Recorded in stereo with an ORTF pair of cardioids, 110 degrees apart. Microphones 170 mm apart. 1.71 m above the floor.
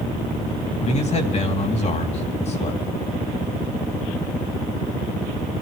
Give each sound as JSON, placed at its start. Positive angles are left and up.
{"t": 0.8, "sound": "a man speaking", "azimuth_deg": 40, "distance_m": 3.5}